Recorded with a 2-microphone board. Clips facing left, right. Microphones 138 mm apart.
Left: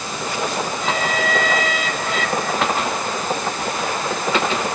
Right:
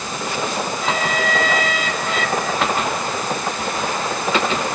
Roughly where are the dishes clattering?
I don't hear dishes clattering.